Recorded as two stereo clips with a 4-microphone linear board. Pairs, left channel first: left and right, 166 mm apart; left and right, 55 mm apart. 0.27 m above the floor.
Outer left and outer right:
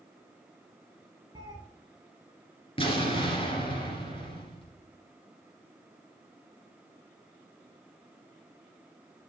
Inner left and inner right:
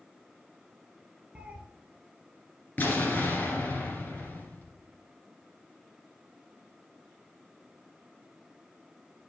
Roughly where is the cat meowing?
Right.